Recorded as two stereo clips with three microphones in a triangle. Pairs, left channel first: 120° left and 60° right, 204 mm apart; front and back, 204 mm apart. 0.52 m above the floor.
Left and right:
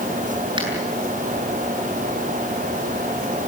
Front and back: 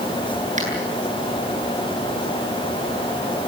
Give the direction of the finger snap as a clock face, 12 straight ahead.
4 o'clock.